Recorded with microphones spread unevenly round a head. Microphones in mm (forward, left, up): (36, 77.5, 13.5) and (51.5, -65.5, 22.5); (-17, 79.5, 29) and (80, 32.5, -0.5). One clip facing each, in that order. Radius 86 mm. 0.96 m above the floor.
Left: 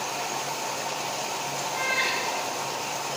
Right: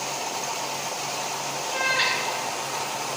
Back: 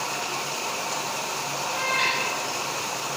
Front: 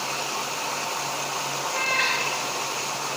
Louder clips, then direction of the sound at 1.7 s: Right 4 dB, back 1 dB; 130° right.